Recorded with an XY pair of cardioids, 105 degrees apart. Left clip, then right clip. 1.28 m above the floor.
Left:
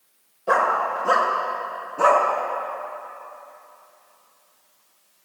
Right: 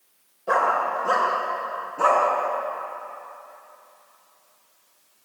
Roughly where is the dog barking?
Ahead.